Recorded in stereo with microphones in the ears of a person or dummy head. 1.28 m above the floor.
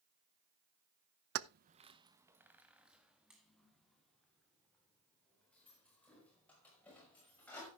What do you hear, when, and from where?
1.4 s keys jangling: 70° right (ahead or behind), 0.5 m; by 7.7 s 5° left (ahead or behind), 6 m